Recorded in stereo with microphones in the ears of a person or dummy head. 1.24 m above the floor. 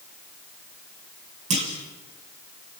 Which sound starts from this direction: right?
A clunk, at 1.5 s.